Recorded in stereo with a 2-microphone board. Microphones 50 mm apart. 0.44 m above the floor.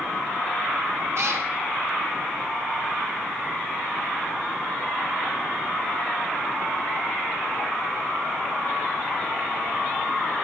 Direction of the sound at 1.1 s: 55° right (ahead or behind).